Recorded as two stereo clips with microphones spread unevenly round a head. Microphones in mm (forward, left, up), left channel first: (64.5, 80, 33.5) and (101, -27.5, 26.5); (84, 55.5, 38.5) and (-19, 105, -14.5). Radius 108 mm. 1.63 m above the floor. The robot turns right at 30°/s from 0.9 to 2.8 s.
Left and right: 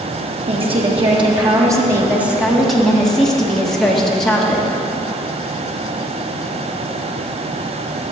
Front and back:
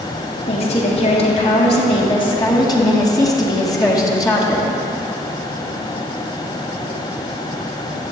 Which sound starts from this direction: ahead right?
A woman speaking, at 0.5 s.